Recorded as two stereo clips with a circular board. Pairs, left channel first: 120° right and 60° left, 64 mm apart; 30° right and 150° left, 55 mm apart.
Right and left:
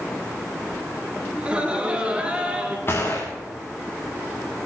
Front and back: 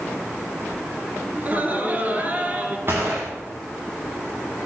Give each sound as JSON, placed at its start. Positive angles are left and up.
{"t": 1.4, "sound": "laughter", "azimuth_deg": 120, "distance_m": 2.0}
{"t": 2.9, "sound": "a gunshot", "azimuth_deg": -170, "distance_m": 3.5}